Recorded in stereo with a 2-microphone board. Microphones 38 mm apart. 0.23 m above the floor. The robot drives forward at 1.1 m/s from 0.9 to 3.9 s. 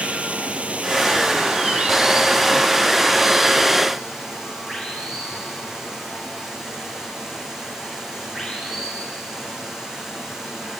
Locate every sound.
0.0 s running water: 30° right (ahead or behind), 1.9 m; by 10.8 s 10° right (ahead or behind), 5 m